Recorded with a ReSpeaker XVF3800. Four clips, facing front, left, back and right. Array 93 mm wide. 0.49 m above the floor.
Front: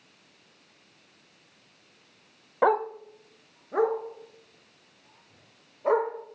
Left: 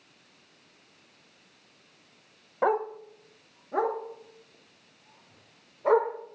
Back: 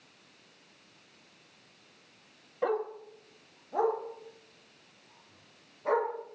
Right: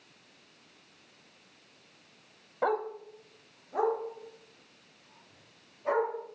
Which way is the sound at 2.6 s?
15° left.